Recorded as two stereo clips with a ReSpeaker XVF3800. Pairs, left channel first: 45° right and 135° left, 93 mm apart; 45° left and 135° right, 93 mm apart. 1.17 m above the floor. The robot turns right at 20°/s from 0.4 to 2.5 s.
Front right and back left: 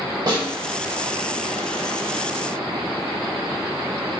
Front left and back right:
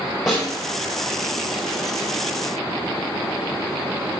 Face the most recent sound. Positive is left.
turn(degrees=-175)